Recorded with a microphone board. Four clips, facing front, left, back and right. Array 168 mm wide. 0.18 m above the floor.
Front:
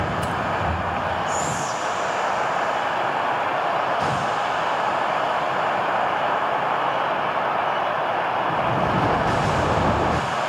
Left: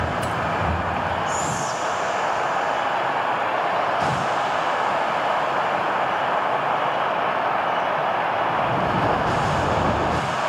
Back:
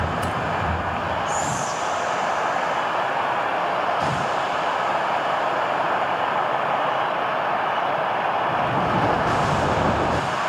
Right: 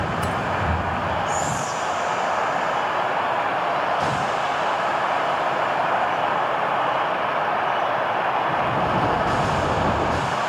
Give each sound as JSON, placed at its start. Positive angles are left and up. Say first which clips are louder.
{"t": 1.3, "sound": "whispering", "louder": "even, even", "azimuth_deg": -145, "distance_m": 4.5}